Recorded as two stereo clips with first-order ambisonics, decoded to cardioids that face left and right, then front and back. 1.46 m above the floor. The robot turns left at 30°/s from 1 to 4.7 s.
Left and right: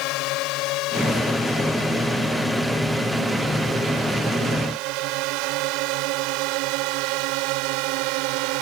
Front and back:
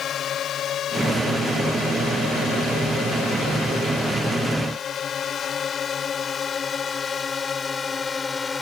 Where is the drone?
60° left; by 8.6 s 80° right.